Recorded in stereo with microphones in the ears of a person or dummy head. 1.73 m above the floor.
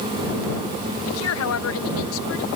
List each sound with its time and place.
1.1 s a woman speaking: 80° left